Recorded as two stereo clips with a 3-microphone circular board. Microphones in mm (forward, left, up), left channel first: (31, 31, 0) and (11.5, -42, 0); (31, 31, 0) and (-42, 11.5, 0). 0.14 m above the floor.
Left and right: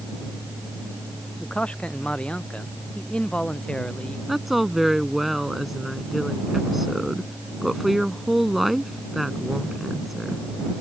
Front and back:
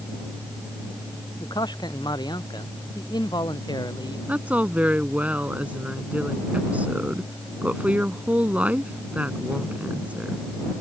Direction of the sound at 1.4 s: Straight ahead.